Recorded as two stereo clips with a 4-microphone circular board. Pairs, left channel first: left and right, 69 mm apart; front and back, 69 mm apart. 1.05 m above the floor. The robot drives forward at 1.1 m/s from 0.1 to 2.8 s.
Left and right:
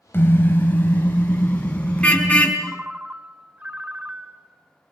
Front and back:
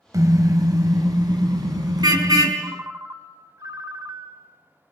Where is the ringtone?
150° right, 1.2 m; by 4.9 s 155° right, 1.4 m.